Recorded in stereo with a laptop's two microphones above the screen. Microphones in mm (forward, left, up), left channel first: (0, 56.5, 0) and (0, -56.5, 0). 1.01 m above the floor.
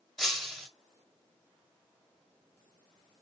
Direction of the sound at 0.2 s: Centre (ahead or behind).